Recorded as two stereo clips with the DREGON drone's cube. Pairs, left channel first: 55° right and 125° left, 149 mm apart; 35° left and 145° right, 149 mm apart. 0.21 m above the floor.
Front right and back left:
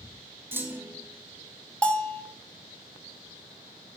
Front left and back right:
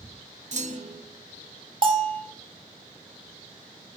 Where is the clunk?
165° right, 0.8 m.